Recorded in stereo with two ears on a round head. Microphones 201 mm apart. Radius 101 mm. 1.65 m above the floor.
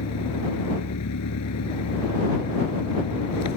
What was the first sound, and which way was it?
An engine running, 80° left.